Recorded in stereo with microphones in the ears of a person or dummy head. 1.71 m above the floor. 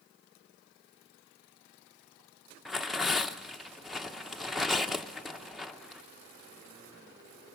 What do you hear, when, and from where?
2.6 s tearing paper: centre (ahead or behind), 0.8 m